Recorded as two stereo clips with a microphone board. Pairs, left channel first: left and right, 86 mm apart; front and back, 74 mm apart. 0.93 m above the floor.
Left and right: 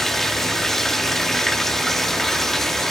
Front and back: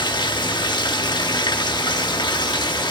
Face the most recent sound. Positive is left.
turn(degrees=5)